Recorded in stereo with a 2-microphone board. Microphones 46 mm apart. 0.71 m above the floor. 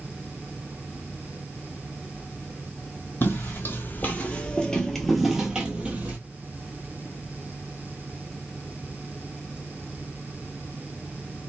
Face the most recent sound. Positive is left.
turn(degrees=-30)  # may be behind; listen again after turning